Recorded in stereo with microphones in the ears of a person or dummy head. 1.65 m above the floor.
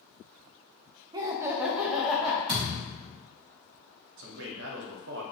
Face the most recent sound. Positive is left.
turn(degrees=-70)  # may be behind; listen again after turning